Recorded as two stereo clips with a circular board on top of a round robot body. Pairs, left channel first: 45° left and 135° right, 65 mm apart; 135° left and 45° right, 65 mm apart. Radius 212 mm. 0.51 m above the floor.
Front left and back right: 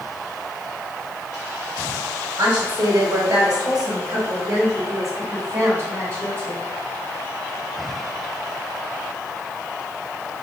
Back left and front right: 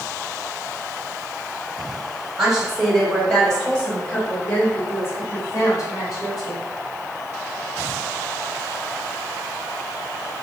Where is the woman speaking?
125° right, 3 m; by 6.6 s 165° left, 3.5 m.